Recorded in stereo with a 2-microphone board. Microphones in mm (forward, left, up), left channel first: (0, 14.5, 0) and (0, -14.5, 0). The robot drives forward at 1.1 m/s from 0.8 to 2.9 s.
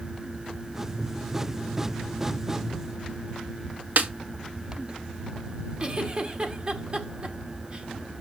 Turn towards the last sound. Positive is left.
turn(degrees=-35)  # may be behind; listen again after turning